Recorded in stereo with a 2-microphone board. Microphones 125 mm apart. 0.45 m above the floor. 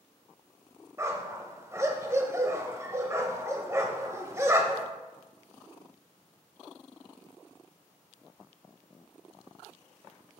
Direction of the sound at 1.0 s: 20° right (ahead or behind).